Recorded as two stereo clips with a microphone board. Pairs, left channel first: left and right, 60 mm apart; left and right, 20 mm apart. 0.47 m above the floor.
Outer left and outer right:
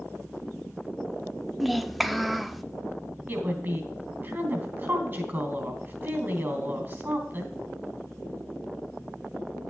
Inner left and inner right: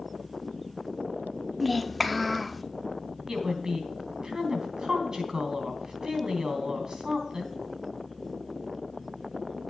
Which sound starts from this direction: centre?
A child speaking, at 1.6 s.